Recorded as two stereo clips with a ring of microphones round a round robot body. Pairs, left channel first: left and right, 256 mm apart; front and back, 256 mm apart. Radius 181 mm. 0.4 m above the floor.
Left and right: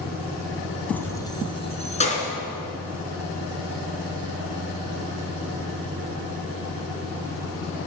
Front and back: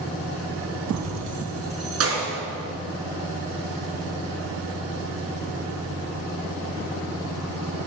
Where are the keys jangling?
175° left, 2 m; by 2.3 s 150° left, 3.5 m.